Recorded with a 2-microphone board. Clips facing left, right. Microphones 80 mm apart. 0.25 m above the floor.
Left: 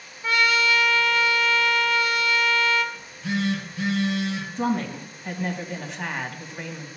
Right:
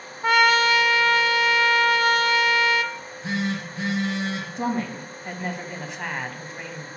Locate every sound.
0.2 s a trumpet: 60° right (ahead or behind), 0.8 m
2.9 s a phone buzzing: 35° right (ahead or behind), 5 m
4.6 s a woman speaking: 5° right (ahead or behind), 2 m